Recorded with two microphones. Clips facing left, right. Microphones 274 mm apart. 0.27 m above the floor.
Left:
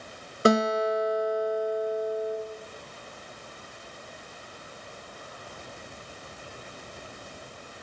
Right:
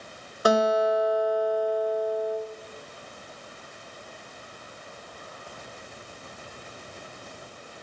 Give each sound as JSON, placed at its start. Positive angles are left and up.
{"t": 0.5, "sound": "a guitar", "side_deg": 25, "distance_m": 0.9}